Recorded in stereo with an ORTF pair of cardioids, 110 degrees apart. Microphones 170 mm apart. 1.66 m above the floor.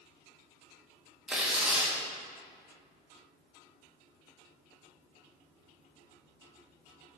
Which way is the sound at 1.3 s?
5° right.